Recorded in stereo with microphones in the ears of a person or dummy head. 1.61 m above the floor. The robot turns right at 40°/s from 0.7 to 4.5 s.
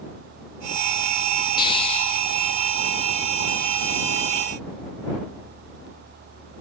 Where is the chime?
No chime in this recording.